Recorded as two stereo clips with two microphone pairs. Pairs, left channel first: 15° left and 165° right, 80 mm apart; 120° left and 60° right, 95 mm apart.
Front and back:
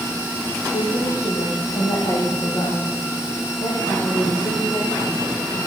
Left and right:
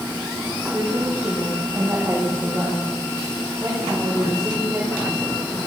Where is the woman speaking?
10° left, 9.5 m; by 5.6 s 20° left, 14.5 m.